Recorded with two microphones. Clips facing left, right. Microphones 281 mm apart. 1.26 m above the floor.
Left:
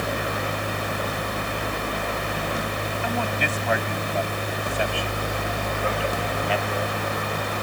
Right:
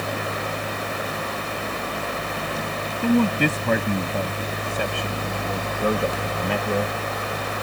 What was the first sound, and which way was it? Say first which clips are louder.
A man speaking: right 12 dB; 50° right (ahead or behind).